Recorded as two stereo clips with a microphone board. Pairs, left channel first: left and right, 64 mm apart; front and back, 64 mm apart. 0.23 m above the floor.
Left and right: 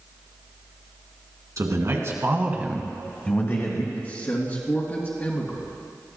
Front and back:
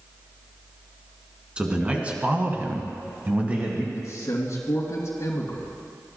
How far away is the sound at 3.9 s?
About 2.5 m.